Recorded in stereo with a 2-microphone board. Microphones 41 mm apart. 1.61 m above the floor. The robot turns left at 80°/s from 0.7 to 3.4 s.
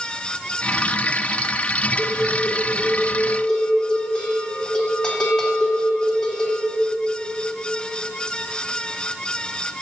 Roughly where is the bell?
Behind left.